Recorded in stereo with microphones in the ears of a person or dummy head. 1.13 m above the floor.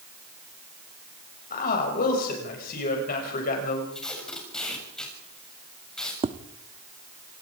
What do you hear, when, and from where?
1.5 s a man speaking: 55° left (ahead or behind), 6.5 m
3.9 s tape being pulled: 10° left (ahead or behind), 7.5 m
6.2 s tapping: 25° right (ahead or behind), 0.8 m